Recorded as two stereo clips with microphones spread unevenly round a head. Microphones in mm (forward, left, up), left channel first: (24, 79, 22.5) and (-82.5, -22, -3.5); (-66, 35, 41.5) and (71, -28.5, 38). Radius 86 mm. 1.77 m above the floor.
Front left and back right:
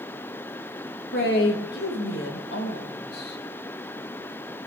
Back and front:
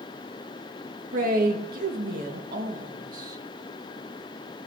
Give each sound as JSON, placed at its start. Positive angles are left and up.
{"t": 1.1, "sound": "a man speaking", "azimuth_deg": 10, "distance_m": 2.5}